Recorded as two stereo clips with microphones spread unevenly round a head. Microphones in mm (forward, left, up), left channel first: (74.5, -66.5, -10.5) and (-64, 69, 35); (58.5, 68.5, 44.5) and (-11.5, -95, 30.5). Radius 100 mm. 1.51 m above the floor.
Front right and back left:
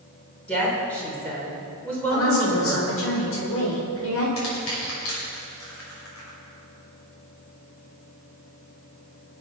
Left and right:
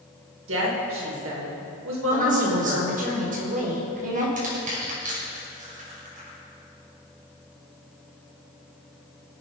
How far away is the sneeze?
No sneeze in this recording.